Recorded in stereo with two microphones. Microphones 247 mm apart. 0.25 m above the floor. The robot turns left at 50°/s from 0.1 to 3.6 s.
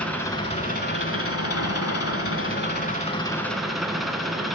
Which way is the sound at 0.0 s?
175° left.